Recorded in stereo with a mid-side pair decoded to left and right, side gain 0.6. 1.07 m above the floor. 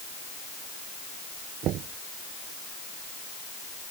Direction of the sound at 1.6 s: 60° right.